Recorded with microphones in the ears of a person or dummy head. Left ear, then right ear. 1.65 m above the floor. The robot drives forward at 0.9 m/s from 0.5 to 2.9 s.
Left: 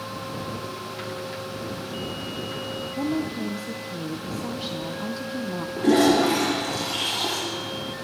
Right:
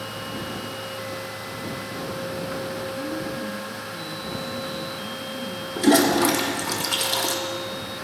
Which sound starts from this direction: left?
A woman speaking, at 3.0 s.